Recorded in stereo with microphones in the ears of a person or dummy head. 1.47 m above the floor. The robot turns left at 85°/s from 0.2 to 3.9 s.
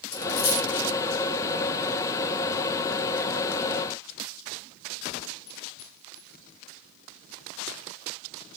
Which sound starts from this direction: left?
A dropped coin, at 0.1 s.